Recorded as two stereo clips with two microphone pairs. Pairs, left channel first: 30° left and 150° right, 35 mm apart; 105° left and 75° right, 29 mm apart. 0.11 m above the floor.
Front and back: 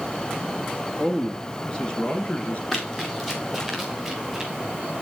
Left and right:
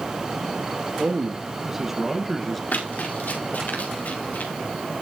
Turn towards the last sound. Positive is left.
turn(degrees=125)